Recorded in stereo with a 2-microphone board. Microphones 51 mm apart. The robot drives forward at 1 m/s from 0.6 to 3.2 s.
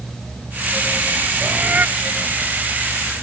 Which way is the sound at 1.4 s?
25° right (ahead or behind).